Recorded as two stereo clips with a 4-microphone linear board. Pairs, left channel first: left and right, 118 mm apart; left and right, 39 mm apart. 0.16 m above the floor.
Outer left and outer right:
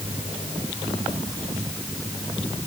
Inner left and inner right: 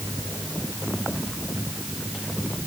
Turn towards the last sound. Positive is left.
No sound to turn to.